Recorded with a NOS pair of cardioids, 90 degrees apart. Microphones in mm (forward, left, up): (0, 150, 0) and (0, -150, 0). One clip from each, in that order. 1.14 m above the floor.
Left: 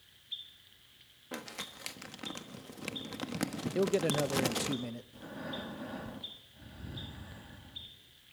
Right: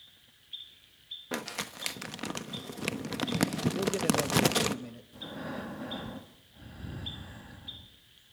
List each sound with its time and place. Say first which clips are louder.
1.3 s crumpling: right 5 dB; 40° right, 1.2 m
3.8 s a man speaking: left 1 dB; 25° left, 0.8 m
5.1 s breathing: right 5 dB; 15° right, 1.5 m